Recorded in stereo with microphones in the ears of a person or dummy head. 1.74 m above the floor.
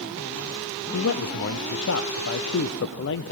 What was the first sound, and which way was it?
A man speaking, 60° left (ahead or behind).